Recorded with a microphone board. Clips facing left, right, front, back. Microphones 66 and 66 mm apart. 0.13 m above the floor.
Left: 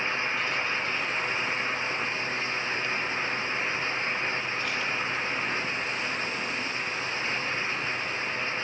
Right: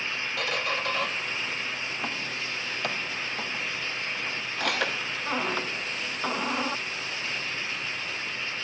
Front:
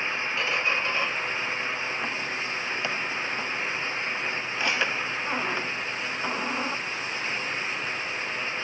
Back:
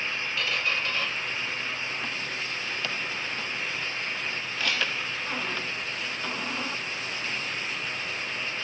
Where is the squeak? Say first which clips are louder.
Even, front 2 dB; 65° right.